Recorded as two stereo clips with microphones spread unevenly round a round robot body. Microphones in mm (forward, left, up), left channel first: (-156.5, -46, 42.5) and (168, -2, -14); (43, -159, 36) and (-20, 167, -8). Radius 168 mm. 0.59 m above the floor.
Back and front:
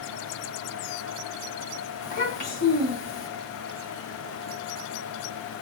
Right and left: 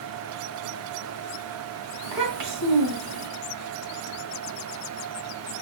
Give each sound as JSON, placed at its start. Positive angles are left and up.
{"t": 2.0, "sound": "a child speaking", "azimuth_deg": 120, "distance_m": 2.5}